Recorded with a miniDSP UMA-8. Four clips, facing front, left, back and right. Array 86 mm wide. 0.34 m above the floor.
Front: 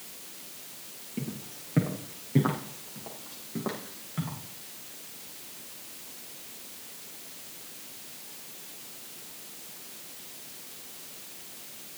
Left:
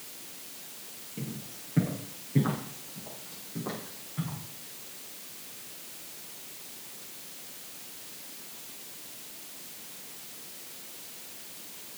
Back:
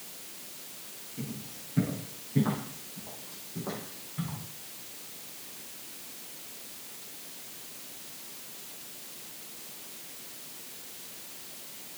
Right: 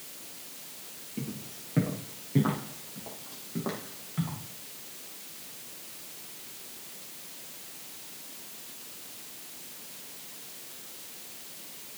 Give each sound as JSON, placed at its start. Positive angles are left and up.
{"t": 1.2, "sound": "footsteps", "azimuth_deg": -15, "distance_m": 7.0}